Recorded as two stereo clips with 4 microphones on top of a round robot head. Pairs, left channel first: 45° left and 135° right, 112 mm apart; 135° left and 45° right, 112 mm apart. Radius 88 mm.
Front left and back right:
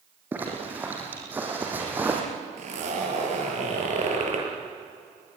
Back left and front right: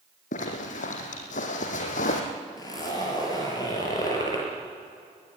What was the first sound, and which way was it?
A zipper, 145° left.